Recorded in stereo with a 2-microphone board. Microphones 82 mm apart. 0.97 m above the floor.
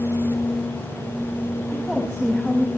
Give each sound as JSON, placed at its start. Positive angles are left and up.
{"t": 1.7, "sound": "a woman speaking", "side_deg": -5, "distance_m": 6.5}